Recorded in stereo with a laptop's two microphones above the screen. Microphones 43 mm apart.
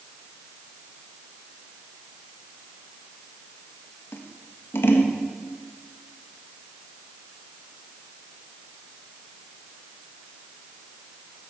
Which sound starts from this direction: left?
Scissors, at 4.1 s.